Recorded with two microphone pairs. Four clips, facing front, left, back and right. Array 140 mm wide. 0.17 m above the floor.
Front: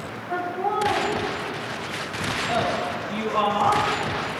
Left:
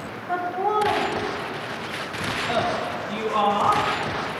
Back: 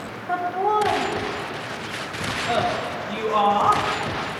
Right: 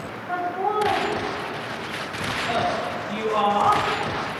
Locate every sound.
0.3 s laughter: 175° left, 5.5 m; by 3.8 s 170° right, 7 m